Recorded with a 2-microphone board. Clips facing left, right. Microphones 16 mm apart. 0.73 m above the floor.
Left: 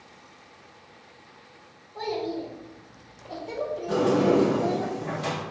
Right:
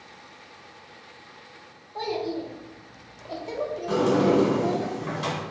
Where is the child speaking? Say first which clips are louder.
Right 1 dB; 60° right (ahead or behind), 1.4 m; by 4.9 s 20° left (ahead or behind), 0.9 m.